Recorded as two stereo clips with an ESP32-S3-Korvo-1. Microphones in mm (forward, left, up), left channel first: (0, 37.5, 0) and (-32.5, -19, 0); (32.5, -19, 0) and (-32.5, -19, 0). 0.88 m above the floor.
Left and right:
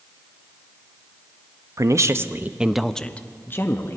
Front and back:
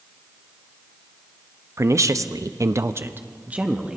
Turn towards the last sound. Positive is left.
turn(degrees=105)